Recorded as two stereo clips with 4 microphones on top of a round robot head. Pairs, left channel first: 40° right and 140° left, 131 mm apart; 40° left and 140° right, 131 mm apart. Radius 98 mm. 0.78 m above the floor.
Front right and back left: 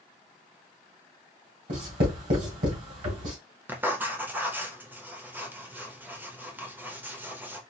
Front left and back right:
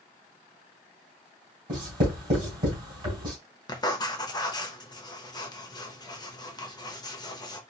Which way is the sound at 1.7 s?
165° left.